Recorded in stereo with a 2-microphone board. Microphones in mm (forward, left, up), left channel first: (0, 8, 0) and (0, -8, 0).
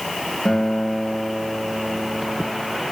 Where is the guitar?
65° left (ahead or behind), 2.5 m.